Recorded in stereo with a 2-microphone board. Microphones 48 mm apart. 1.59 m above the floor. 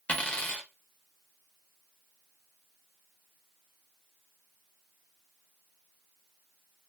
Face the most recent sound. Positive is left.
turn(degrees=25)  # may be behind; listen again after turning